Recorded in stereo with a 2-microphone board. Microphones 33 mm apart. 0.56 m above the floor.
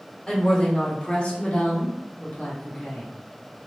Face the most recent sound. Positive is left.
turn(degrees=45)  # may be behind; listen again after turning